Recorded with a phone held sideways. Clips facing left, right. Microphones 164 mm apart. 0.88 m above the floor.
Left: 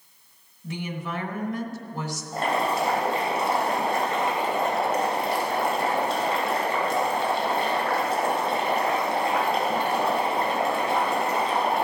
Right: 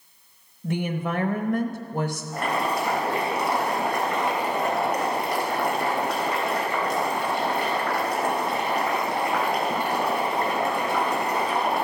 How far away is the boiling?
About 3.5 m.